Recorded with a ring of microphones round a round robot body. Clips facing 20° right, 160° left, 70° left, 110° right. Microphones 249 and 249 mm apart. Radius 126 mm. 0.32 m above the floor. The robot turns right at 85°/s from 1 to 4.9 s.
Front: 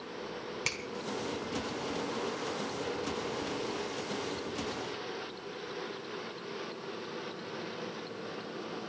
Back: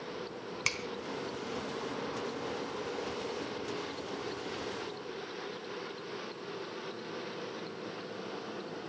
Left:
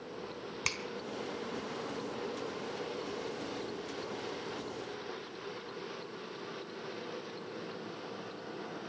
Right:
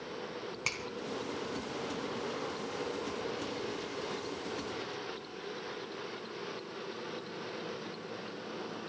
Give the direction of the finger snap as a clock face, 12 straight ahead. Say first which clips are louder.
Even, even; 9 o'clock.